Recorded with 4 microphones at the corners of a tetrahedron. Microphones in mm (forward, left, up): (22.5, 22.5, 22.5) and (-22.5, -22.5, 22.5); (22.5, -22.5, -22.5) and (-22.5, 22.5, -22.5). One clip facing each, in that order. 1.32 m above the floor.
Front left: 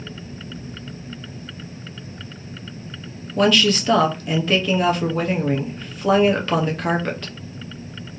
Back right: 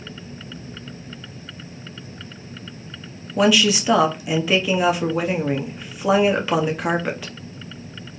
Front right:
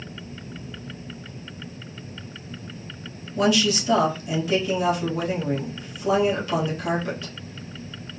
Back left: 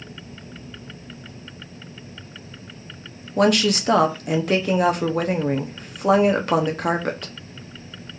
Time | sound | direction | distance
3.4 | a woman speaking | 145° left | 0.6 m